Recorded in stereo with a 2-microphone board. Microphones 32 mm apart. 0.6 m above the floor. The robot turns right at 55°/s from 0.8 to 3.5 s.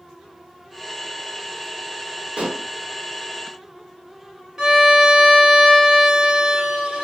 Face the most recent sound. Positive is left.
turn(degrees=-20)  # may be behind; listen again after turning